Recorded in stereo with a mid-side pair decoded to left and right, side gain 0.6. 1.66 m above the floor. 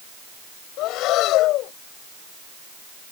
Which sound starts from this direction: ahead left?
Breathing, at 0.8 s.